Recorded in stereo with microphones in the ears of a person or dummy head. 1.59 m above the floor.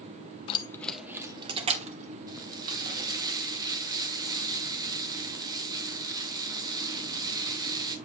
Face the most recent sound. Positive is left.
turn(degrees=-20)  # may be behind; listen again after turning